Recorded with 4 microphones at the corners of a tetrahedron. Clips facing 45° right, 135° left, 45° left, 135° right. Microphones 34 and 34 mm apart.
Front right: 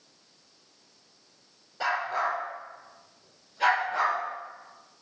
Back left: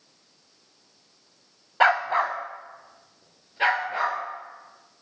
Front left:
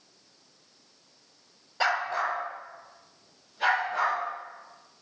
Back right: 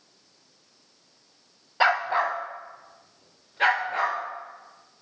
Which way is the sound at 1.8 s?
155° left.